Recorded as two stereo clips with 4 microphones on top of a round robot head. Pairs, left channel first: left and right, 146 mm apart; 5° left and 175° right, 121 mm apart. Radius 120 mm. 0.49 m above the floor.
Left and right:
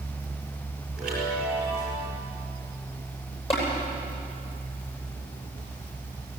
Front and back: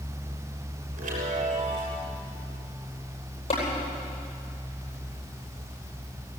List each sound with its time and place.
1.0 s a chime: straight behind, 6.5 m
3.5 s tapping: 40° left, 10 m